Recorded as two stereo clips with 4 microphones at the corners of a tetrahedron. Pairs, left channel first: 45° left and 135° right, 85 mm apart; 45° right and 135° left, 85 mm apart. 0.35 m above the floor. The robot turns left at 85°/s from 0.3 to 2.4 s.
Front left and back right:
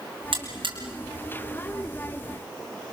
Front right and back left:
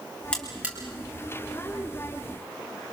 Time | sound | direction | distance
0.3 | a buzzer | 120° right | 5.5 m